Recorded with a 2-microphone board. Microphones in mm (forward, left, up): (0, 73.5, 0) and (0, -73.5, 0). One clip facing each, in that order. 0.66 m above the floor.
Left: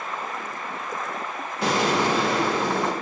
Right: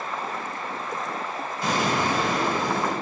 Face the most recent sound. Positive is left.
turn(degrees=80)